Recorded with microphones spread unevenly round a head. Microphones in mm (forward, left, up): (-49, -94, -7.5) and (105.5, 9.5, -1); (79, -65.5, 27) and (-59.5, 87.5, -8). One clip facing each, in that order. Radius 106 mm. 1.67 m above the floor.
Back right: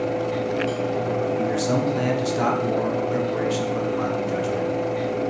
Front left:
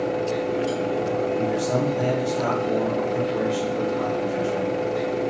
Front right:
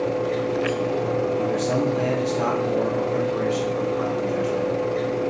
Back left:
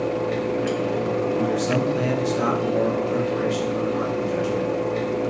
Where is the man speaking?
155° right, 1.0 m.